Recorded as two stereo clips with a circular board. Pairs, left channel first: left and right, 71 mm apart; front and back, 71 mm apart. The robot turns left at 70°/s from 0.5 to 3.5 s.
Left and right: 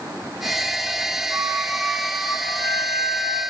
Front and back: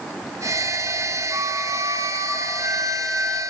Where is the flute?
135° right, 6.5 m; by 3.4 s 80° left, 6.5 m.